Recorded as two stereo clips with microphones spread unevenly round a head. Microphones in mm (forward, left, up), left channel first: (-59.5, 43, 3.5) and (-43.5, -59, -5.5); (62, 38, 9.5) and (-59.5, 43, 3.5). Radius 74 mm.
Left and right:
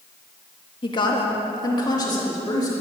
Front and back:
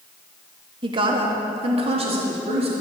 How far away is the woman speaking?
About 2.0 m.